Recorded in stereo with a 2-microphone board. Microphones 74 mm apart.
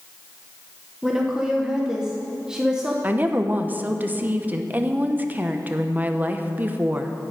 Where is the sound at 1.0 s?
10° right (ahead or behind), 1.1 m.